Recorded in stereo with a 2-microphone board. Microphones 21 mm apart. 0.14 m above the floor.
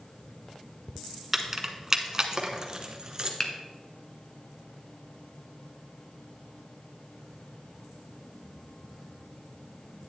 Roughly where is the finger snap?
Left.